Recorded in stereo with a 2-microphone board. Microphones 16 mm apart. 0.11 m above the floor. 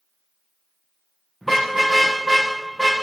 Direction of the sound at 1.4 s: 10° left (ahead or behind).